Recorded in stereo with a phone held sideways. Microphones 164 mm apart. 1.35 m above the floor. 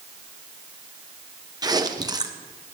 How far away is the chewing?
About 1.1 m.